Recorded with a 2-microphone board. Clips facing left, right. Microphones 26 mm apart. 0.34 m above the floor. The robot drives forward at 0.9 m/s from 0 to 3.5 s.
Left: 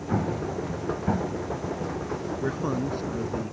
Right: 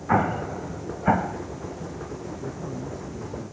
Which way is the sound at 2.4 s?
55° left (ahead or behind).